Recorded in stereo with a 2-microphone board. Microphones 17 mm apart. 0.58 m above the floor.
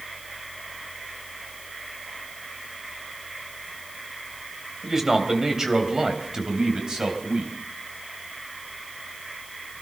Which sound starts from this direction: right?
A man speaking, at 4.8 s.